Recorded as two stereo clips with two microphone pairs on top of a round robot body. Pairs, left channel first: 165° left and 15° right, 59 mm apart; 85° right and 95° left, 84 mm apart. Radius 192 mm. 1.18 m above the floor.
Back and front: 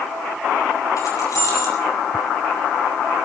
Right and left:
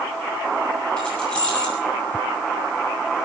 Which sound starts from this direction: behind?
Keys jangling, at 1.0 s.